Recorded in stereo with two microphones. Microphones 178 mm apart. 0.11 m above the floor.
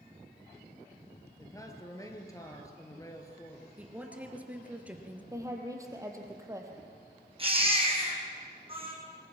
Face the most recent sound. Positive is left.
turn(degrees=-30)  # may be behind; listen again after turning